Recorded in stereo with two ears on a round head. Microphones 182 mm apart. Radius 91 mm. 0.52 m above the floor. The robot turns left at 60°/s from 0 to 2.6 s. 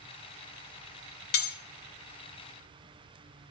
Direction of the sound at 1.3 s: 50° left (ahead or behind).